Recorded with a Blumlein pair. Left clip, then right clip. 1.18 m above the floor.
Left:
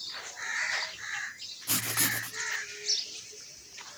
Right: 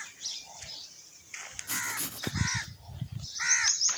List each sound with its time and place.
1.7 s writing: 20° left, 1.1 m